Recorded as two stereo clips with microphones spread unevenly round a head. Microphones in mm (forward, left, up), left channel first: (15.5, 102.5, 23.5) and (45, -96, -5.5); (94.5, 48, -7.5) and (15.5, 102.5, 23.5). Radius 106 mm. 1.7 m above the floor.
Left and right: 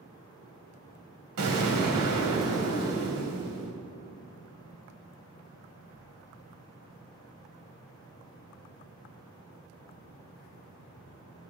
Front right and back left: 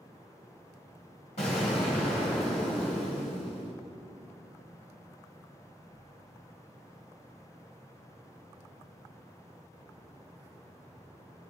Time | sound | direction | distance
1.4 | an explosion | 90° right | 2.0 m